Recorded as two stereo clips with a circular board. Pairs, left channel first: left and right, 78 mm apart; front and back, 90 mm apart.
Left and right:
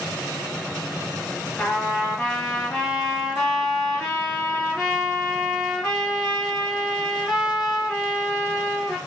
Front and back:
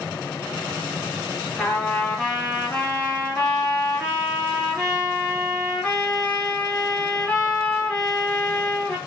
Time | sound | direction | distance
1.6 | a trumpet | 20° left | 1.3 m